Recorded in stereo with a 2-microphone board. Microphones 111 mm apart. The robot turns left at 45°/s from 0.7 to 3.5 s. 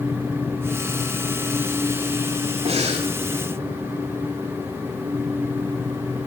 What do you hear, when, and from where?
2.6 s breathing: 75° right (ahead or behind), 6.5 m; by 3.1 s 85° right, 6.5 m